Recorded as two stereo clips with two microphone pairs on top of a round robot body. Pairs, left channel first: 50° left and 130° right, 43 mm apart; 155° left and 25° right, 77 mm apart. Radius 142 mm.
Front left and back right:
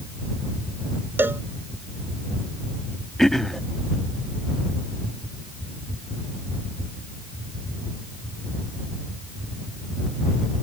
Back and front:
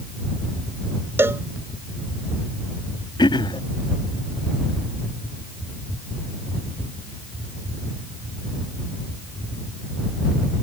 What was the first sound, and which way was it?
A cowbell, 85° right.